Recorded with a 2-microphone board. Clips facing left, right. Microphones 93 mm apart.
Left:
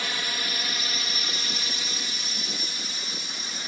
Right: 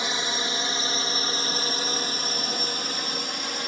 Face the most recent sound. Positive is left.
turn(degrees=-65)  # may be behind; listen again after turning